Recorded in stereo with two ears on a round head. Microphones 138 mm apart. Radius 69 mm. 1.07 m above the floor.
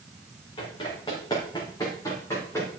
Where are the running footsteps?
30° left (ahead or behind), 4 m; by 2.7 s 20° left (ahead or behind), 3.5 m.